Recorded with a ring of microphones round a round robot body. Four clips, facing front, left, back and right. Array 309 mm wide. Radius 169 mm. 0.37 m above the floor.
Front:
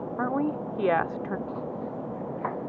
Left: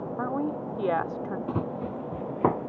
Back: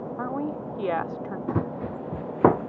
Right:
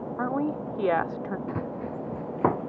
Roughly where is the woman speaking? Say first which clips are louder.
Right 2 dB, front 4 dB; ahead right.